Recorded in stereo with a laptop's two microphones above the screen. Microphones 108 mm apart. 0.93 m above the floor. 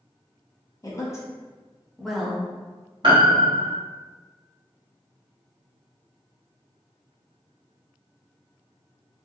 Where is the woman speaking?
35° left (ahead or behind), 1.2 m; by 2.5 s 10° right (ahead or behind), 0.9 m.